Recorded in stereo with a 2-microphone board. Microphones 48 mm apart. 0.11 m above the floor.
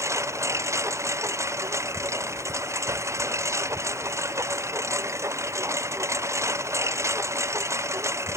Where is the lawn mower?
85° right; by 8.4 s 80° right.